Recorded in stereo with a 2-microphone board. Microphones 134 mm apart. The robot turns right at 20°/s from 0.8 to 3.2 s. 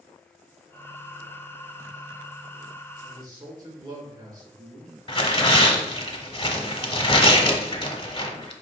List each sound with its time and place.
3.0 s a man speaking: 35° right (ahead or behind), 3 m; by 6.1 s 30° right (ahead or behind), 3 m
5.1 s tearing paper: 40° left (ahead or behind), 1.1 m